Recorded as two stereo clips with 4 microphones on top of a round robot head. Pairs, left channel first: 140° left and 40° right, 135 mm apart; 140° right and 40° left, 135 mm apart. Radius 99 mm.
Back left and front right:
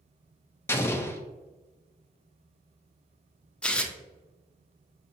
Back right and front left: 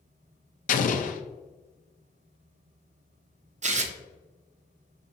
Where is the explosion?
150° right, 0.5 m.